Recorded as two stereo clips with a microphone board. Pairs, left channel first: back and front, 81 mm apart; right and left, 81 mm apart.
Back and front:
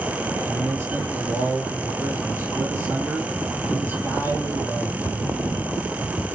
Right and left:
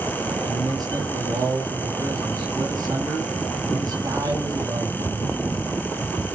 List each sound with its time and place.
0.4 s a man speaking: 60° left, 6 m